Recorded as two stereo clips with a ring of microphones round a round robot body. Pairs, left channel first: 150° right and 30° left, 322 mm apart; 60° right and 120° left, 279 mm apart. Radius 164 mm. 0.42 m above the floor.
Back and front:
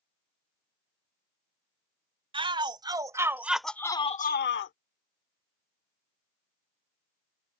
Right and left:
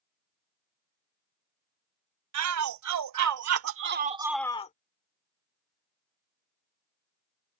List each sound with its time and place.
2.3 s a shout: 105° left; by 4.7 s 110° right